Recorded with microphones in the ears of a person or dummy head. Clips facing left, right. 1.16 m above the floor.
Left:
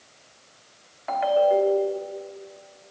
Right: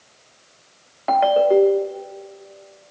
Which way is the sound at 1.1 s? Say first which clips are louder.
Right 5 dB; 55° right (ahead or behind).